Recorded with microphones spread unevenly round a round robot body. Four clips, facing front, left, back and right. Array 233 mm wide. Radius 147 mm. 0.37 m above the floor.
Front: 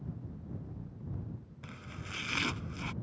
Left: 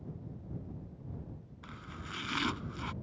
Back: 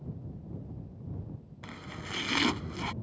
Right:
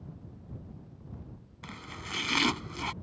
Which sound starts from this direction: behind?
Chopping, at 1.6 s.